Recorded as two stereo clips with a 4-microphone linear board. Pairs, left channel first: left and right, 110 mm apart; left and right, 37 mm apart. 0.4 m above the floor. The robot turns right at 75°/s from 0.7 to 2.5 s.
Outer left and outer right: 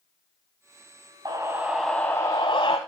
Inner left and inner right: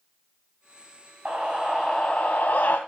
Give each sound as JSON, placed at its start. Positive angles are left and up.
{"t": 1.2, "sound": "a scream", "azimuth_deg": -45, "distance_m": 2.5}